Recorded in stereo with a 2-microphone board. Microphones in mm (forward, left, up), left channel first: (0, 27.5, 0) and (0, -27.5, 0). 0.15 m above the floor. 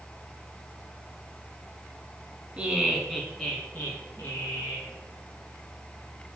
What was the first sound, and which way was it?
Laughter, 20° right (ahead or behind).